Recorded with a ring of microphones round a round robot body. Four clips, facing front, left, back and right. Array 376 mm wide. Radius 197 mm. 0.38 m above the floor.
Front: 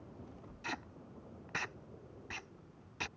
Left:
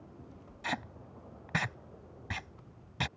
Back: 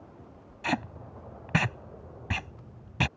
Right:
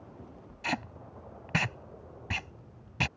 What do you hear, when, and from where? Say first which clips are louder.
0.6 s tape being pulled: right 3 dB, back 14 dB; 170° right